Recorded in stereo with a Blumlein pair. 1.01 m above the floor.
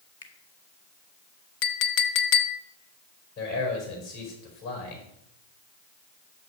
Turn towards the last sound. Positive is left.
turn(degrees=45)